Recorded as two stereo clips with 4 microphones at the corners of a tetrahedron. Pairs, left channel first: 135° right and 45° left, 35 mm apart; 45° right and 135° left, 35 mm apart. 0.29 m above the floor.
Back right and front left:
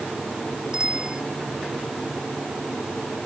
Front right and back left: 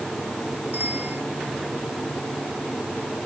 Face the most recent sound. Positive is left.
turn(degrees=110)